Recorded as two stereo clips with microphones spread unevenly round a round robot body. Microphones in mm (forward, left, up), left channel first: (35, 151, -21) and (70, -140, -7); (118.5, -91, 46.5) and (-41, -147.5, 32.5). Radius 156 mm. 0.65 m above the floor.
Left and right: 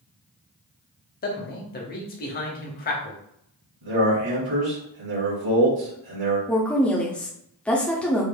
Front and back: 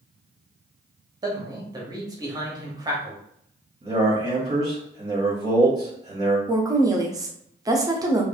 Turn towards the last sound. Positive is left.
turn(degrees=175)